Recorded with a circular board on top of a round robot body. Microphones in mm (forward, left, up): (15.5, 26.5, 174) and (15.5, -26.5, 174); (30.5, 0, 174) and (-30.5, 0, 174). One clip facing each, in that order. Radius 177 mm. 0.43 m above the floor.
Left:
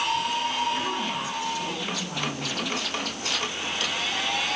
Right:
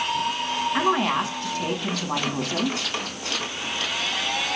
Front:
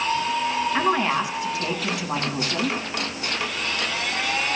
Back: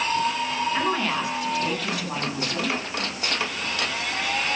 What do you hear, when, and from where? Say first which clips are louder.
0.7 s a woman speaking: right 7 dB, front 4 dB; 65° right, 7 m